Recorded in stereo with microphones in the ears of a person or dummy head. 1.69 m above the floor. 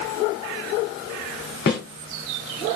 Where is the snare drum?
45° left (ahead or behind), 1.6 m.